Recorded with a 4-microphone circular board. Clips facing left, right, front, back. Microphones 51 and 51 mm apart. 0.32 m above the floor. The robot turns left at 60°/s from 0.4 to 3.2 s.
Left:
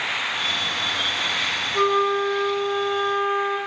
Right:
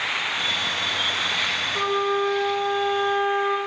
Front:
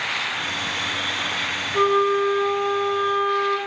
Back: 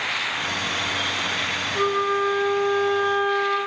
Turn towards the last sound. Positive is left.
turn(degrees=-75)